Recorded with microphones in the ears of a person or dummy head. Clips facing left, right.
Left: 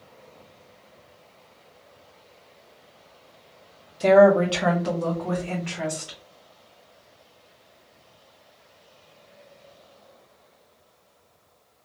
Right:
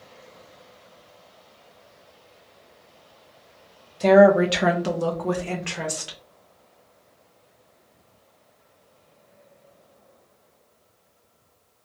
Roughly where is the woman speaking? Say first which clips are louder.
Right 1 dB; centre.